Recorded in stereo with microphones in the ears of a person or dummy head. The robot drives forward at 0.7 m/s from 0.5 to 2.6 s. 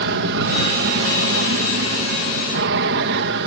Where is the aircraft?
65° right (ahead or behind).